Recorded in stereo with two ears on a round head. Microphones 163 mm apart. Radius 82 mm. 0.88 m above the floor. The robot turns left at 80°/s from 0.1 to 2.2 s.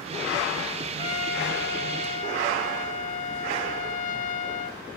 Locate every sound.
1.0 s a trumpet: 145° left, 1.8 m; by 4.8 s 50° left, 1.8 m